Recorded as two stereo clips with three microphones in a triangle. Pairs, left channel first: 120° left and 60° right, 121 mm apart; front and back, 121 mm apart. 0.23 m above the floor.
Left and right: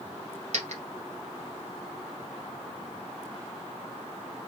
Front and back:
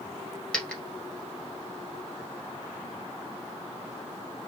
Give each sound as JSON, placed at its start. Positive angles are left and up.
{"t": 0.5, "sound": "a dropped coin", "azimuth_deg": -80, "distance_m": 1.7}